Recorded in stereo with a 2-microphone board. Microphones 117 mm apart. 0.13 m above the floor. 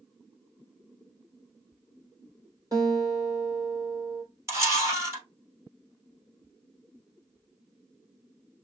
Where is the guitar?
30° right (ahead or behind), 3 m.